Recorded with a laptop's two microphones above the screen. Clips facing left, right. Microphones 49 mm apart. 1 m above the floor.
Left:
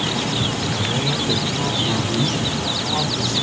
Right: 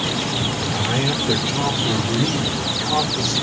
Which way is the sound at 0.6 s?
50° right (ahead or behind).